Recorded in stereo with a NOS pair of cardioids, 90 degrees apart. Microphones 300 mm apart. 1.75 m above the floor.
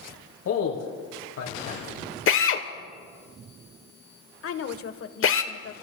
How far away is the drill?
About 1.1 m.